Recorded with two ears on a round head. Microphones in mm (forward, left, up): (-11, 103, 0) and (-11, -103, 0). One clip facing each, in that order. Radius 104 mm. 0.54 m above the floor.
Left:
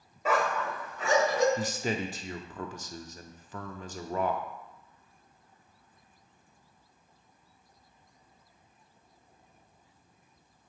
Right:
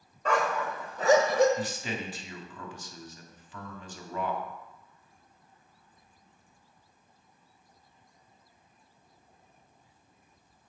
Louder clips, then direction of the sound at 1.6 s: Left 3 dB; 35° left (ahead or behind).